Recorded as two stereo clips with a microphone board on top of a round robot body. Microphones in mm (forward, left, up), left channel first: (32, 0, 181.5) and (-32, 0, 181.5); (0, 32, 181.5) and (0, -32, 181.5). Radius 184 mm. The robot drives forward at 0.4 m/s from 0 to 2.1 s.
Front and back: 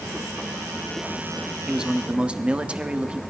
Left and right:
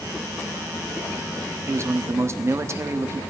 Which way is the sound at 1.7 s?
105° right.